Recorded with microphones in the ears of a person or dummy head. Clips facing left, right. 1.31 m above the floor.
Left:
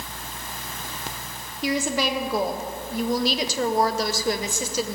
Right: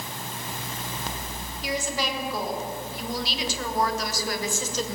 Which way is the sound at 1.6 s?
65° left (ahead or behind).